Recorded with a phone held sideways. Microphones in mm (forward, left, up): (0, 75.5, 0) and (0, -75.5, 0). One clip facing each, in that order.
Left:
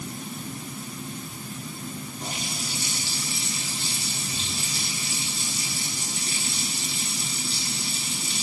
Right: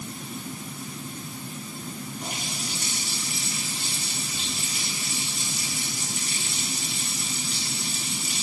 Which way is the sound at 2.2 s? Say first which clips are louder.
Even; 30° left (ahead or behind).